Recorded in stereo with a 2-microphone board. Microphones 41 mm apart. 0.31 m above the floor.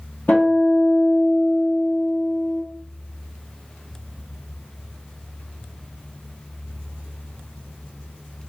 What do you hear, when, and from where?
0.3 s a guitar: 45° left (ahead or behind), 1.5 m